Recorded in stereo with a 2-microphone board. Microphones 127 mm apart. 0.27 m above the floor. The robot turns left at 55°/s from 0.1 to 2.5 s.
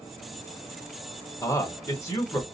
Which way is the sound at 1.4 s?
25° left (ahead or behind).